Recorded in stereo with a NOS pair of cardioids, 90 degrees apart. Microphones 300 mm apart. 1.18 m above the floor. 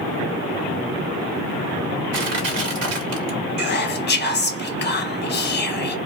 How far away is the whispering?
About 0.9 m.